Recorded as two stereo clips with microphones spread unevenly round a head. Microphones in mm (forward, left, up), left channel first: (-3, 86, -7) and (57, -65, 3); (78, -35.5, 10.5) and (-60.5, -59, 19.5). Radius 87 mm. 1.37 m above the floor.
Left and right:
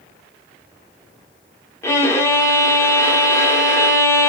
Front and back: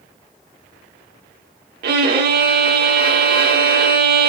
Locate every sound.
1.8 s a violin: 170° right, 2 m